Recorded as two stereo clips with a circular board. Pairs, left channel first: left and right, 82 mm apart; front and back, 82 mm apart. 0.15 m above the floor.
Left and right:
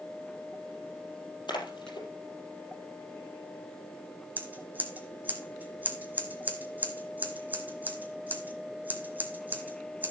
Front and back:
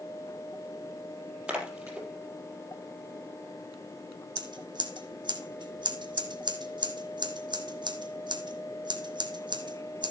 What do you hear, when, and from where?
1.5 s a splash: 100° left, 4 m
4.4 s scissors: 160° right, 1.7 m